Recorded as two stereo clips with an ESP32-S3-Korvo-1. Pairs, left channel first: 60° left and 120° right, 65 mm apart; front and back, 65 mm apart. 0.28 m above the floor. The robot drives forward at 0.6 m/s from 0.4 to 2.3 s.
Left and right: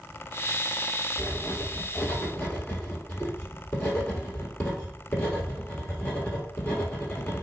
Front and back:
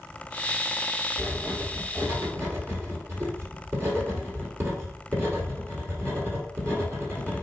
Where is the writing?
100° left, 1.1 m; by 7.4 s 130° left, 1.4 m.